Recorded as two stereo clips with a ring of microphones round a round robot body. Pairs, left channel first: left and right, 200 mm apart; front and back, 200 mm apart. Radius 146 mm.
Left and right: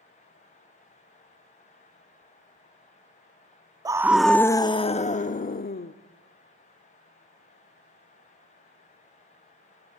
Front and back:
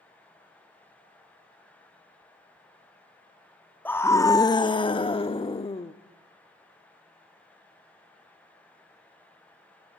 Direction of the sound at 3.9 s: 65° right.